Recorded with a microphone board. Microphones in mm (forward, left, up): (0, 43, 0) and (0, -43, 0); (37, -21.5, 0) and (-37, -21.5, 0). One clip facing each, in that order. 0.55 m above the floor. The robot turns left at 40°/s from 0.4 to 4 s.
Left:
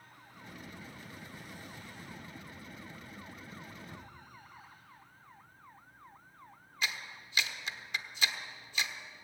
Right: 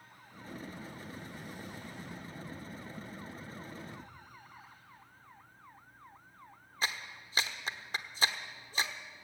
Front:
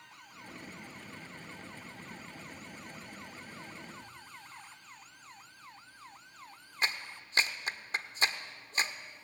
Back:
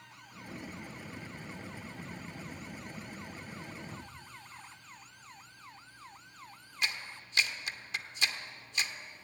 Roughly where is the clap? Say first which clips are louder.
Right 1 dB, front 2 dB; ahead right.